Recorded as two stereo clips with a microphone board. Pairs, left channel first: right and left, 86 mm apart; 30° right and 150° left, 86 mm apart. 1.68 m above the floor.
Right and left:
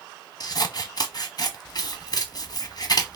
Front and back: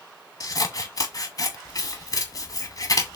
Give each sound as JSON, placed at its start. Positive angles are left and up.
{"t": 0.4, "sound": "scissors", "azimuth_deg": -65, "distance_m": 0.8}